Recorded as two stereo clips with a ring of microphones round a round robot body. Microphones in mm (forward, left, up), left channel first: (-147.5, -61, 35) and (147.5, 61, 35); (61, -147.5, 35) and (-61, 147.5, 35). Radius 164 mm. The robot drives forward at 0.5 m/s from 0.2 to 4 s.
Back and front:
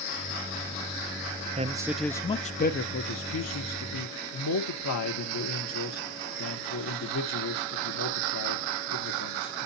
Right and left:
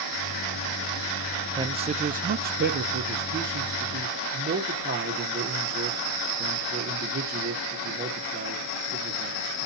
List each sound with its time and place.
1.6 s a man speaking: 55° left, 0.6 m; by 9.7 s 170° left, 1.2 m